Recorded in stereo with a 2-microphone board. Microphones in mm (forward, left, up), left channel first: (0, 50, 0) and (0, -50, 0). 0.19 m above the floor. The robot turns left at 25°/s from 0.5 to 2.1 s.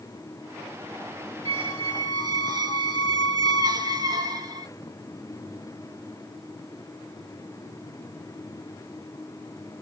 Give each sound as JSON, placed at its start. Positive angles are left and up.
{"t": 1.4, "sound": "a squeak", "side_deg": -55, "distance_m": 0.9}